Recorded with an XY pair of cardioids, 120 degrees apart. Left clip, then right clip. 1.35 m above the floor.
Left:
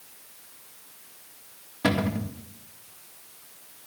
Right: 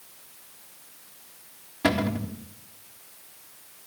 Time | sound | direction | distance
1.8 | a cupboard door | straight ahead | 2.5 m